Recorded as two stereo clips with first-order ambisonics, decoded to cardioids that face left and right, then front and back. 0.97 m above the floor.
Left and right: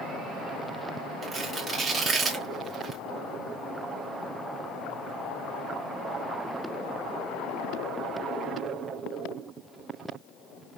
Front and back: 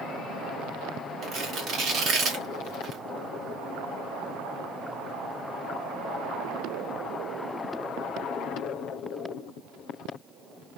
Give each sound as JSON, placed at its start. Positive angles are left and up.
{"t": 1.2, "sound": "tearing paper", "azimuth_deg": -155, "distance_m": 0.9}